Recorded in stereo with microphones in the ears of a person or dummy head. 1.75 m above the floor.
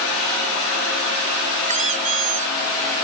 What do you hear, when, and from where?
1.7 s a squeak: 40° right (ahead or behind)